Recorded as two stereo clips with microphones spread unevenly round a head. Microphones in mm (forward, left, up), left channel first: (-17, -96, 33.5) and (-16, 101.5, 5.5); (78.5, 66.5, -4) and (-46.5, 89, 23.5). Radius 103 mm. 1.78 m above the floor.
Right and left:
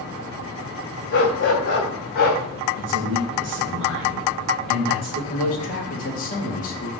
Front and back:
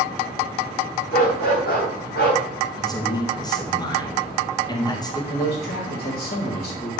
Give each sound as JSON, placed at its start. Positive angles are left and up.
{"t": 1.1, "sound": "a dog barking", "azimuth_deg": -55, "distance_m": 3.0}
{"t": 2.8, "sound": "a man speaking", "azimuth_deg": 50, "distance_m": 3.0}
{"t": 5.3, "sound": "a man speaking", "azimuth_deg": -35, "distance_m": 2.5}